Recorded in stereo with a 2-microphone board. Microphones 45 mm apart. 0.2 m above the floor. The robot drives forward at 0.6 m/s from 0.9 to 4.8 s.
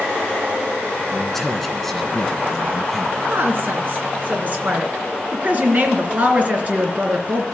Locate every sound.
1.1 s a man speaking: 5° left (ahead or behind), 2.5 m; by 3.2 s 10° left (ahead or behind), 1.5 m
3.3 s a woman speaking: 45° right (ahead or behind), 2.5 m; by 7.5 s 35° right (ahead or behind), 3 m